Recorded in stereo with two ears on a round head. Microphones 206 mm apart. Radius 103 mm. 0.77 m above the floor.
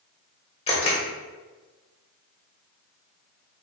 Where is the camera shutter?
25° left (ahead or behind), 1.5 m.